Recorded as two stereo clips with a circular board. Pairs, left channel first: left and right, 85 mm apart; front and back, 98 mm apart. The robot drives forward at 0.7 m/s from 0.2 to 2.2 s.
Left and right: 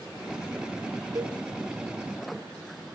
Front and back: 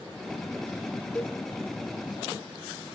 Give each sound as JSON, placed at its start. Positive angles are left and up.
{"t": 1.1, "sound": "a cowbell", "azimuth_deg": -65, "distance_m": 0.9}